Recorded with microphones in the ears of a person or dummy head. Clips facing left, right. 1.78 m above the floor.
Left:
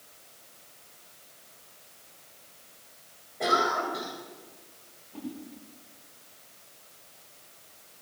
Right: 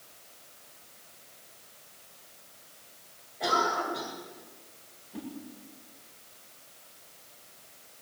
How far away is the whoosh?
About 6.5 m.